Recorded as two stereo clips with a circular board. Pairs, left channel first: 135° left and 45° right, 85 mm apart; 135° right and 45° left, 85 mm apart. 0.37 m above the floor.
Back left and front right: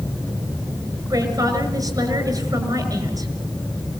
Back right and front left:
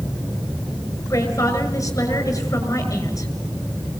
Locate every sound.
1.1 s a woman speaking: 85° right, 6 m